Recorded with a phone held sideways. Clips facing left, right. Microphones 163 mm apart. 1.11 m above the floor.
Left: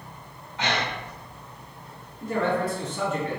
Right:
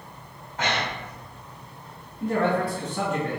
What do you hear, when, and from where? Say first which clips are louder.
0.6 s breathing: even; 50° right (ahead or behind), 0.8 m
2.2 s a man speaking: right 2 dB; 65° right (ahead or behind), 1.7 m